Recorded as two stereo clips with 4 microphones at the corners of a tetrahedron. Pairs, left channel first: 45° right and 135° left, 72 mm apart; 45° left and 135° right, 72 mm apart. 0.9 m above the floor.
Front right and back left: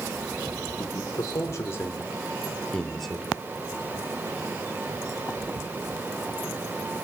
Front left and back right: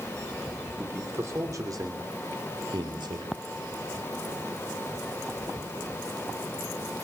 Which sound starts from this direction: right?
A man speaking, at 0.8 s.